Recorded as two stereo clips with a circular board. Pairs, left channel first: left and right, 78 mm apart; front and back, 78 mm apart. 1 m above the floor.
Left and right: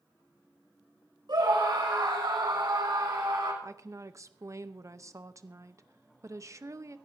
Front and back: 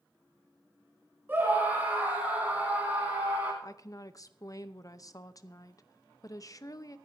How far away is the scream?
About 6 m.